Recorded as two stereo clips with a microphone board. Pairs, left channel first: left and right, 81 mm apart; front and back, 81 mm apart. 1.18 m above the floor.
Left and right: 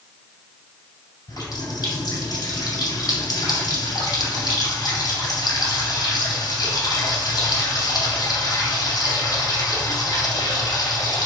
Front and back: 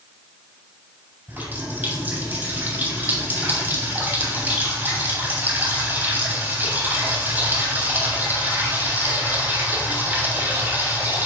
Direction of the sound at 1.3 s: 115° left.